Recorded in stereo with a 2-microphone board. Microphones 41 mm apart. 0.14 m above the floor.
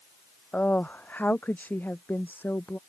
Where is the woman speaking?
40° left (ahead or behind); by 2.8 s 55° left (ahead or behind).